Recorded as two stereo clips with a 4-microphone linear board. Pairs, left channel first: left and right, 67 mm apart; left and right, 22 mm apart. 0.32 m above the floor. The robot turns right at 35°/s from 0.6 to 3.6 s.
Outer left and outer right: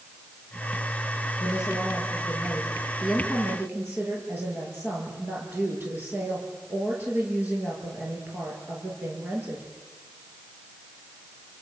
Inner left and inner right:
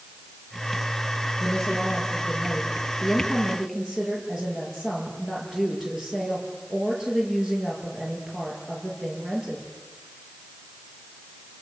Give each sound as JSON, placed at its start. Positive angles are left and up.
{"t": 1.4, "sound": "a woman speaking", "azimuth_deg": 130, "distance_m": 8.0}